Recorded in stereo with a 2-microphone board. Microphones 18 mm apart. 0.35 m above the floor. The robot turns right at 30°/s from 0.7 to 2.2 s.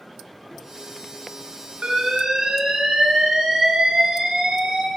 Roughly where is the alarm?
Right.